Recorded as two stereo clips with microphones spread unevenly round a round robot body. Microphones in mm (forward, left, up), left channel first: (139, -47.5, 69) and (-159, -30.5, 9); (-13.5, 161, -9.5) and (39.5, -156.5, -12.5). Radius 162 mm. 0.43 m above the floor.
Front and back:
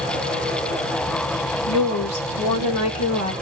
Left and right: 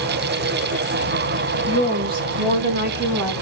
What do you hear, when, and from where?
1.7 s a woman speaking: straight ahead, 2 m; by 3.3 s 50° right, 1.9 m